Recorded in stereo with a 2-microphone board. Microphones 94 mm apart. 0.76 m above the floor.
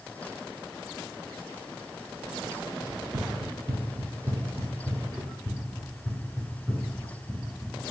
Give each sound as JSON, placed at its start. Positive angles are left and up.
{"t": 2.9, "sound": "running footsteps", "side_deg": -50, "distance_m": 1.2}